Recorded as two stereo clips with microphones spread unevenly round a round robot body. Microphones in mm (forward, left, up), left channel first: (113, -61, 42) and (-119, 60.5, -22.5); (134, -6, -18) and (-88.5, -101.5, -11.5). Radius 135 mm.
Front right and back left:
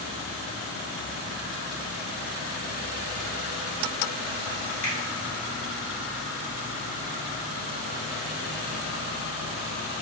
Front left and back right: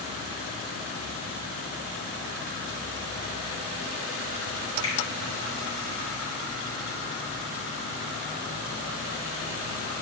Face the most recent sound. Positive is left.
turn(degrees=-25)